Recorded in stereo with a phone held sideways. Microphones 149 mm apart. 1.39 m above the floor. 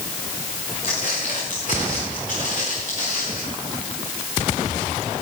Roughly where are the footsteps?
Left.